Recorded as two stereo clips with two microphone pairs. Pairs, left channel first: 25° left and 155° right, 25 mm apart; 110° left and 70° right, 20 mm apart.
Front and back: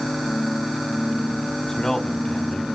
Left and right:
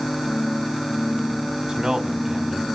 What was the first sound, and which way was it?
A man speaking, 35° right.